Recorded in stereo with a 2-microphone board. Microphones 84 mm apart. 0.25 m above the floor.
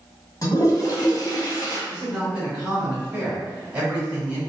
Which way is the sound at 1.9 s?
10° right (ahead or behind).